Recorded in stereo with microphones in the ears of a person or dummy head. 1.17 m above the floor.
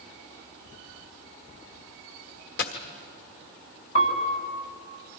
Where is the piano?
75° left (ahead or behind), 3 m.